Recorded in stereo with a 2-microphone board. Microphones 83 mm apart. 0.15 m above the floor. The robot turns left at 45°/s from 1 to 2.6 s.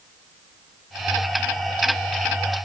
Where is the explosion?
I don't hear an explosion.